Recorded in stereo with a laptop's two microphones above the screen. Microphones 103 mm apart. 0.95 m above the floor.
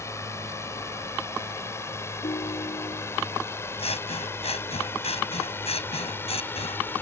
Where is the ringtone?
75° left (ahead or behind).